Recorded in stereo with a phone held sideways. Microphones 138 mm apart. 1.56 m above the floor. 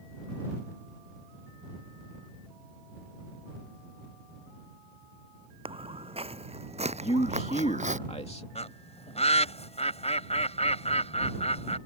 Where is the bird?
50° left (ahead or behind).